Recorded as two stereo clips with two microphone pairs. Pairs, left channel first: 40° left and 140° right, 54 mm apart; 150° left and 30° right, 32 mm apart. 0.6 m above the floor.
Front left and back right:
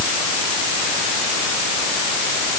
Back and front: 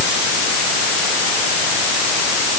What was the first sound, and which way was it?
Only background noise.